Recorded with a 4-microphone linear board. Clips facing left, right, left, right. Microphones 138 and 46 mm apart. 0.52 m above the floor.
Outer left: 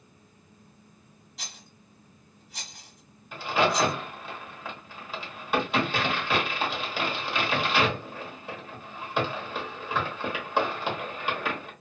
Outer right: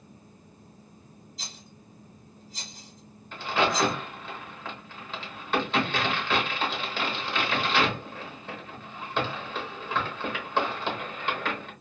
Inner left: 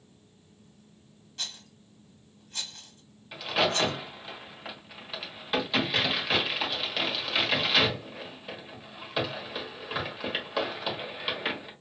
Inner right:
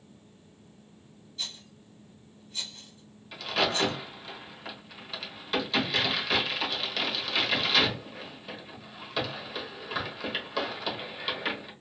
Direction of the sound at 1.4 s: 70° left (ahead or behind).